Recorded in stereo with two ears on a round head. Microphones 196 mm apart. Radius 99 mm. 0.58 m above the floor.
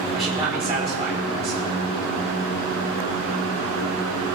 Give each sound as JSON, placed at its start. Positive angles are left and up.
{"t": 0.1, "sound": "a man speaking", "side_deg": -25, "distance_m": 2.0}